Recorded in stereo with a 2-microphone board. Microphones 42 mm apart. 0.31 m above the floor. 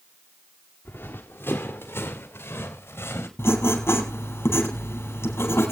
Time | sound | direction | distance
0.8 | running footsteps | 55° left (ahead or behind) | 2.5 m
3.4 | writing | 80° left | 4 m